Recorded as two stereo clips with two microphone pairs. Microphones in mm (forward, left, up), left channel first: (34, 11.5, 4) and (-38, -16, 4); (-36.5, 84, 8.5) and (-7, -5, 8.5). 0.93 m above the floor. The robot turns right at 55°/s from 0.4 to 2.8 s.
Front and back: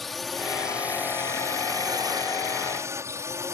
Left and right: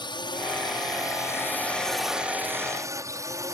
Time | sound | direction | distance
0.0 | a drone | 110° left | ?